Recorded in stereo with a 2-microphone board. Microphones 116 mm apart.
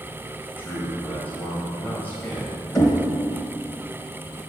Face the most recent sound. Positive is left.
turn(degrees=30)  # may be behind; listen again after turning